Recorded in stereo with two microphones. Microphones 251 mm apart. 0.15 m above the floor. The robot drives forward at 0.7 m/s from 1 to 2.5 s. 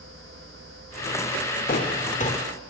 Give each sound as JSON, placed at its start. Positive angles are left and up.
{"t": 1.7, "sound": "footsteps", "side_deg": 35, "distance_m": 1.4}